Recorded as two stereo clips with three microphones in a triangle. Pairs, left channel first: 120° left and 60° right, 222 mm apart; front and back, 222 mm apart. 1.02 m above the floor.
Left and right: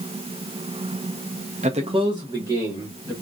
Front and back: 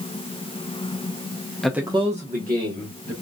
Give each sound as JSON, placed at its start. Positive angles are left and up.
{"t": 1.6, "sound": "a man speaking", "azimuth_deg": -85, "distance_m": 0.6}